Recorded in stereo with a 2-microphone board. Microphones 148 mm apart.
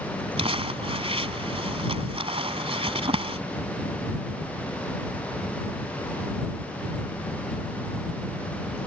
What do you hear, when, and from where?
0.4 s crumpling: 40° right (ahead or behind)